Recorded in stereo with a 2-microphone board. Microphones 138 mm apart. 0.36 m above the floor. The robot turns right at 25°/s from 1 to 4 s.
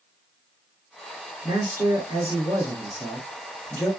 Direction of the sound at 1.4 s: 45° right.